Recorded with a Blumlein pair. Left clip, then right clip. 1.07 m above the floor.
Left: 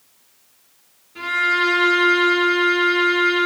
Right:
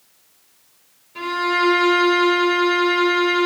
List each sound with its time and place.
1.1 s a violin: 25° right, 4 m